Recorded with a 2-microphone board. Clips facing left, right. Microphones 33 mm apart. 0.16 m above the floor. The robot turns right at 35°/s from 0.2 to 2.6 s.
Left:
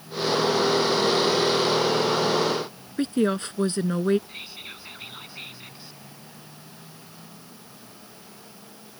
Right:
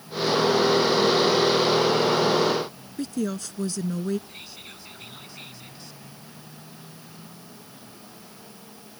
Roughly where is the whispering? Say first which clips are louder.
Left 3 dB; left.